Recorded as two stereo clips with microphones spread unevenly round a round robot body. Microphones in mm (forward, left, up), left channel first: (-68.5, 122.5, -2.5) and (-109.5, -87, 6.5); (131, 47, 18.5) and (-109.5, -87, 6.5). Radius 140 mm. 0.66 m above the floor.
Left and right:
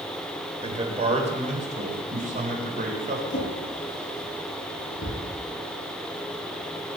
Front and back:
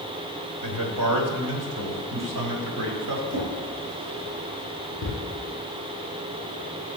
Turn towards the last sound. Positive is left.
turn(degrees=130)